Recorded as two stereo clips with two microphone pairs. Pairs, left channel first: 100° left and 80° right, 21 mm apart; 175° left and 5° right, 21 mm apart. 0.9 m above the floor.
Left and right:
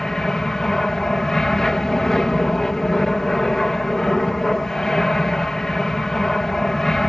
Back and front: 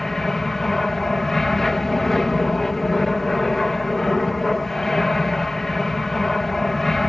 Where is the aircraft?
125° left.